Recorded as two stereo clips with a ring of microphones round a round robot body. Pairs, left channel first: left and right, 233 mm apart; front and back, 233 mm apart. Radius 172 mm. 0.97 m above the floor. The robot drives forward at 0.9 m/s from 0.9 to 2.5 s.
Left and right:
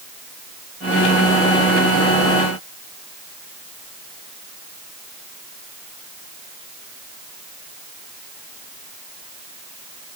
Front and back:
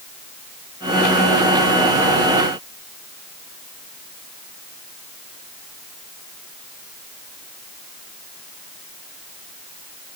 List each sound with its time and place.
Only background noise.